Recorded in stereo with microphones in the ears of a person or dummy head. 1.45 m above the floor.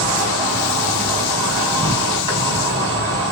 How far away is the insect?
About 2.5 m.